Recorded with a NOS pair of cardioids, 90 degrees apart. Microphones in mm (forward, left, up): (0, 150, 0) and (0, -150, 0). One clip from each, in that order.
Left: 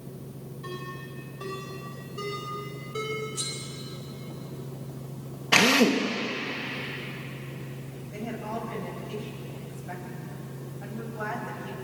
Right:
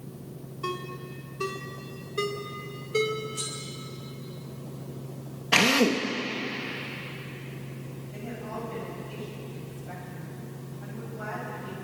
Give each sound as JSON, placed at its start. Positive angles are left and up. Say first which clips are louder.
{"t": 0.6, "sound": "a ringtone", "louder": "right 5 dB", "azimuth_deg": -70, "distance_m": 3.5}
{"t": 3.4, "sound": "cutlery clinking", "louder": "left 1 dB", "azimuth_deg": 5, "distance_m": 8.0}
{"t": 5.5, "sound": "a drill", "louder": "left 1 dB", "azimuth_deg": 5, "distance_m": 2.5}
{"t": 8.1, "sound": "a woman speaking", "louder": "left 3 dB", "azimuth_deg": 30, "distance_m": 8.5}